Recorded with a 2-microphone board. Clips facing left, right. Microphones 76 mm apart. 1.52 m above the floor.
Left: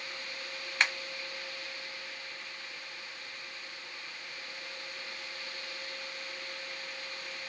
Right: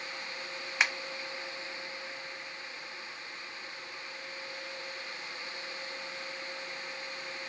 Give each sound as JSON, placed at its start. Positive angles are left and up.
{"t": 0.8, "sound": "a finger snap", "side_deg": -5, "distance_m": 0.8}